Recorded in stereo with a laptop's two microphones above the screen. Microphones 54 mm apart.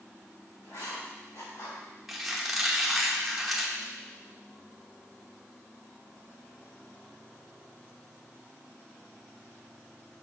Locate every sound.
0.6 s writing: 70° left (ahead or behind), 3 m
2.1 s a squeak: 5° right (ahead or behind), 1.1 m